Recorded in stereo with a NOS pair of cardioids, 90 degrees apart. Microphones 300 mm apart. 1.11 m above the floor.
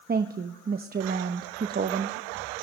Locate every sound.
0.1 s a woman speaking: 30° right, 0.9 m